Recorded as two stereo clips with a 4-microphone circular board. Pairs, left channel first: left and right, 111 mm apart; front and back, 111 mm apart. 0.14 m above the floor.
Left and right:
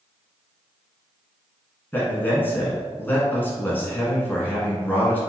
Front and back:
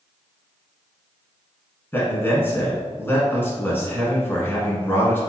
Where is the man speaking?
40° left, 1.4 m.